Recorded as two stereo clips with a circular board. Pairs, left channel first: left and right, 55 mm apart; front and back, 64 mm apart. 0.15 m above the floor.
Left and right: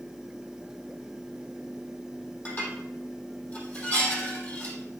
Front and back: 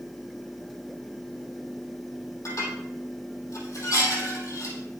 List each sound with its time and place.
2.5 s dishes clattering: 35° left, 3 m